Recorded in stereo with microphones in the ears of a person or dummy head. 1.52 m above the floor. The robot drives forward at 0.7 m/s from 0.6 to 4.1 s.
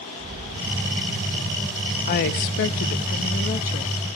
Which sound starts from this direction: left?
A woman speaking, at 2.1 s.